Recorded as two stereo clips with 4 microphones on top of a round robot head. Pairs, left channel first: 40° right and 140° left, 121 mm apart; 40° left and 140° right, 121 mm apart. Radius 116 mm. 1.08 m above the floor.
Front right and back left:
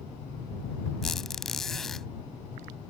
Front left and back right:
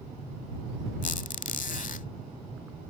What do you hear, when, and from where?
1.0 s a squeak: 45° left